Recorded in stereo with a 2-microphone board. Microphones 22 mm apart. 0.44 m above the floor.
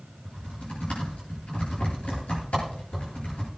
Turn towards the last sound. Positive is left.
turn(degrees=80)